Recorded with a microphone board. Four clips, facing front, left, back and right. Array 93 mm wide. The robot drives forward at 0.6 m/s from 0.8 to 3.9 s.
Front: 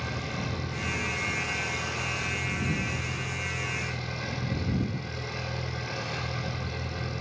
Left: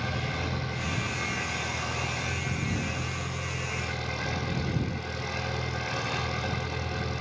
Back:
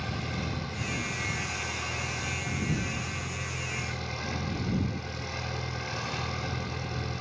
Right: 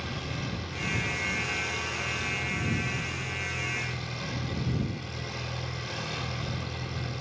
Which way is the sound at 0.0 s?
75° left.